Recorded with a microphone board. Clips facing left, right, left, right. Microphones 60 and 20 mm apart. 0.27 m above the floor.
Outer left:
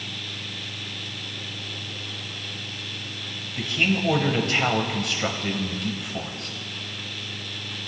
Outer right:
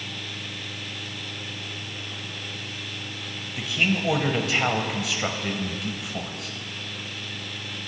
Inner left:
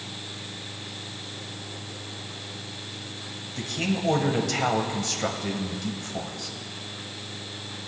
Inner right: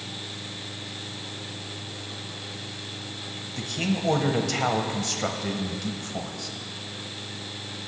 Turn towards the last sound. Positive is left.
turn(degrees=0)  # may be behind; listen again after turning